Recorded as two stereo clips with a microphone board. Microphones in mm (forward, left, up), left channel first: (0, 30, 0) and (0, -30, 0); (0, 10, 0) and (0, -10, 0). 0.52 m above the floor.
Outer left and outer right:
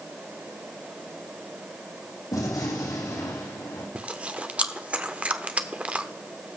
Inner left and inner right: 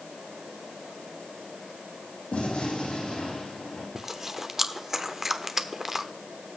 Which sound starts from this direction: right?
Chewing, at 4.0 s.